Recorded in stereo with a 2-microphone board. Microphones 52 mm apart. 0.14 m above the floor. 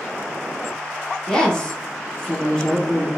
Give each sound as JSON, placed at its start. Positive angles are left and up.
{"t": 1.3, "sound": "a woman speaking", "side_deg": 20, "distance_m": 1.1}